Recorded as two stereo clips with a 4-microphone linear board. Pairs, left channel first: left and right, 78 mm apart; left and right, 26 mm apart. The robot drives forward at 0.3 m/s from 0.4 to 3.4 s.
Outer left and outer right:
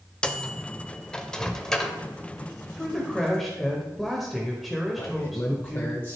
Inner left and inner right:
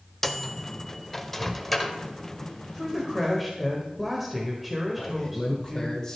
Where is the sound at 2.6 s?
Centre (ahead or behind), 1.6 m.